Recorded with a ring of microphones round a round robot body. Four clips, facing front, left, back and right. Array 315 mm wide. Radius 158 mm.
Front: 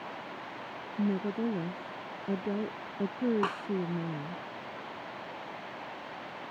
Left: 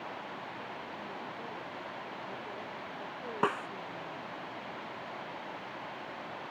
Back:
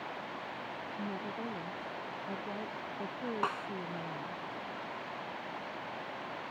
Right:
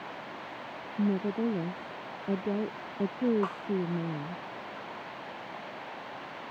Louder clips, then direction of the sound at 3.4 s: Left 4 dB, front 1 dB; 80° left.